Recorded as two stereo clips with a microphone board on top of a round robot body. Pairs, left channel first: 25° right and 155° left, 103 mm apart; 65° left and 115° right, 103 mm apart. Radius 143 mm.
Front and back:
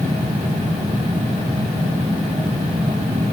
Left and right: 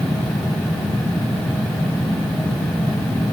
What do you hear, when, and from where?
Only background noise.